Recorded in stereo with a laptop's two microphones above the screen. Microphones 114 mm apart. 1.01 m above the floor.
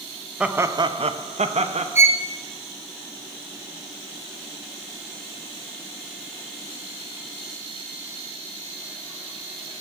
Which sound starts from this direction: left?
A violin, at 1.9 s.